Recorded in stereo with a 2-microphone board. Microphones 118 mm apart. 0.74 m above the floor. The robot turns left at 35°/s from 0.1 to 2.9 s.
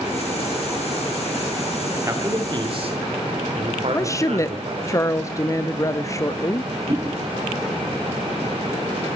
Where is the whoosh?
40° right (ahead or behind), 7 m.